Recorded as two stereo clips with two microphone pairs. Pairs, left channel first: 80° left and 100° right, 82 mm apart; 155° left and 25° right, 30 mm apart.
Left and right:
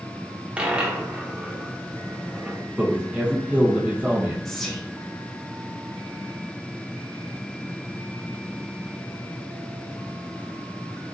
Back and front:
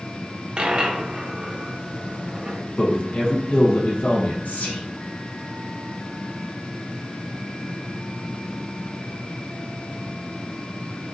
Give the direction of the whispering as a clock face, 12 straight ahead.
7 o'clock.